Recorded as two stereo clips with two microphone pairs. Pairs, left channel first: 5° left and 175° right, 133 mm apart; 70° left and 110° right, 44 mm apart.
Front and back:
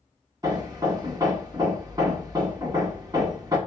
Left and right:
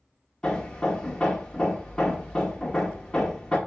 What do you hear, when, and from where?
0.4 s hammering: 135° left, 1.5 m